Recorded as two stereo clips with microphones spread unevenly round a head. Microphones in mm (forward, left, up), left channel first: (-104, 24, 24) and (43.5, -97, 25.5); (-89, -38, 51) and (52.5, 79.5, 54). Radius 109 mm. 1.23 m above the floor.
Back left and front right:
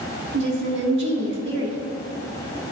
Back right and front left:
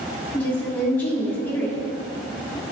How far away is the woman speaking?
About 1.5 m.